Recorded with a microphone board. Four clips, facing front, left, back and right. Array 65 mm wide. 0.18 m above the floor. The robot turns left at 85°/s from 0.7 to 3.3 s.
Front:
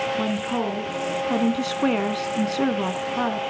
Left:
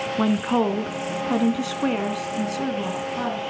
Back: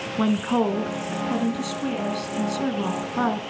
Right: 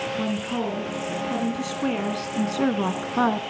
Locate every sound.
0.2 s a woman speaking: 120° left, 1.9 m; by 3.4 s 105° right, 1.9 m